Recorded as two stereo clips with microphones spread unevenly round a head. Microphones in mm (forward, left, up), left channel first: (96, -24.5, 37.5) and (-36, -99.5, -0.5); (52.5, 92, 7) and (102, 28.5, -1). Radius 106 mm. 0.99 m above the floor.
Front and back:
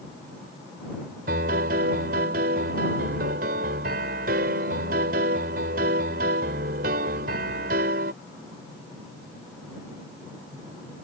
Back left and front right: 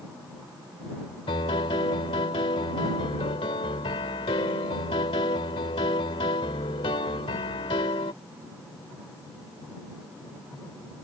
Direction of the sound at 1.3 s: 165° left.